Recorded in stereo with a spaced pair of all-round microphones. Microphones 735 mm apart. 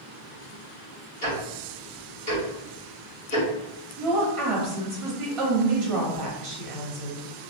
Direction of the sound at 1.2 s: 10° left (ahead or behind).